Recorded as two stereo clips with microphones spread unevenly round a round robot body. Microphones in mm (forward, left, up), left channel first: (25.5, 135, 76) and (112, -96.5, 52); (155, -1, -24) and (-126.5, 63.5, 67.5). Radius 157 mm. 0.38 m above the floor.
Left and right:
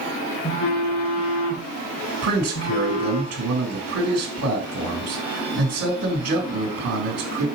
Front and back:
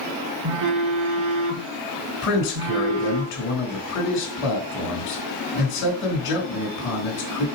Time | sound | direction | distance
0.4 | a phone buzzing | 155° left | 2 m
2.2 | a man speaking | 55° right | 3.5 m